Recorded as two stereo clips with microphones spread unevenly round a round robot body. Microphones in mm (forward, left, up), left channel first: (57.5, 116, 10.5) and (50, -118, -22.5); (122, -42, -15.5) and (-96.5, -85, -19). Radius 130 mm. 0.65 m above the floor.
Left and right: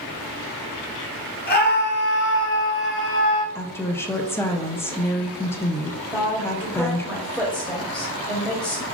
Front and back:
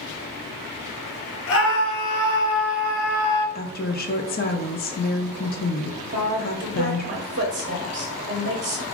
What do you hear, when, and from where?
1.5 s a scream: 40° left, 1.1 m; by 3.5 s 55° left, 2 m
3.5 s a woman speaking: straight ahead, 0.6 m
6.1 s a woman speaking: straight behind, 0.7 m